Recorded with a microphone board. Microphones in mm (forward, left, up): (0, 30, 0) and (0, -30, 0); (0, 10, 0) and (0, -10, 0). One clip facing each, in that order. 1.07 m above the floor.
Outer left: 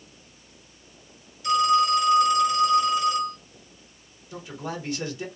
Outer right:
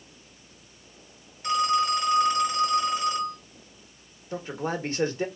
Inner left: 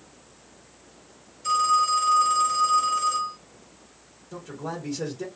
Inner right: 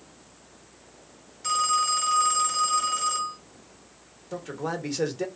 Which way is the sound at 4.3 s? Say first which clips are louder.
Outer right 4 dB, inner right 3 dB; 40° right (ahead or behind).